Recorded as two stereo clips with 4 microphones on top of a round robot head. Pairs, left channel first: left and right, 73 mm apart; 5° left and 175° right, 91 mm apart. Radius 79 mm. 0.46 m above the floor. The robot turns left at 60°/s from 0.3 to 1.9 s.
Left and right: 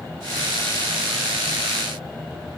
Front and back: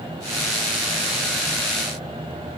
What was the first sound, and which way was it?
Only background noise.